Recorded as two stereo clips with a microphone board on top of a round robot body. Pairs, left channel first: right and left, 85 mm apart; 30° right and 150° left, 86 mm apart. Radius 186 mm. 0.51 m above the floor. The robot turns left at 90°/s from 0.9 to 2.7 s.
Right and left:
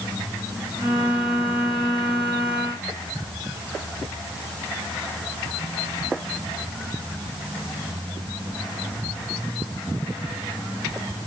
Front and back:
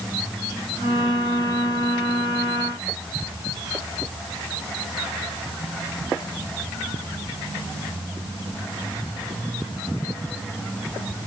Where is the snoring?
I don't hear snoring.